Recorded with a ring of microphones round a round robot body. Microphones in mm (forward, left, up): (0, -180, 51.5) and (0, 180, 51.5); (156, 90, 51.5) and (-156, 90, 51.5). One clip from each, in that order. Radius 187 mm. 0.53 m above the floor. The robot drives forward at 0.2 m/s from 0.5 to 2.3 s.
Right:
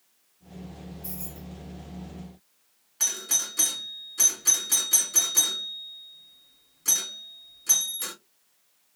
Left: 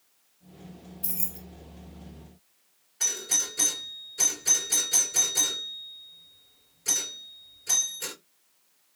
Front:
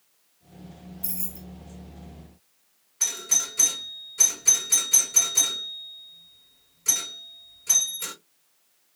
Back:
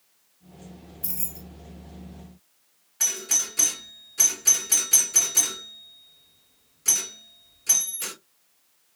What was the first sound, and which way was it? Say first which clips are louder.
Keys jangling: left 6 dB, back 1 dB; 100° left.